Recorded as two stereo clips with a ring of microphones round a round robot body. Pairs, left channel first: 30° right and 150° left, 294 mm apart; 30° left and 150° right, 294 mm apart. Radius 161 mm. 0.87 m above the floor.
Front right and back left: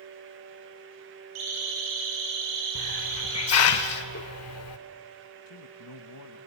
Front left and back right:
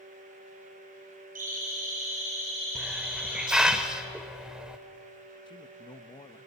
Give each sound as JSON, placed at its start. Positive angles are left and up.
{"t": 1.4, "sound": "a siren", "azimuth_deg": 145, "distance_m": 8.5}
{"t": 2.8, "sound": "a hiss", "azimuth_deg": -65, "distance_m": 0.8}
{"t": 5.5, "sound": "a man speaking", "azimuth_deg": -45, "distance_m": 1.0}